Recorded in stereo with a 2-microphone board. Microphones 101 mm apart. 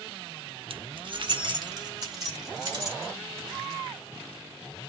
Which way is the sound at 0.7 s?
60° right (ahead or behind).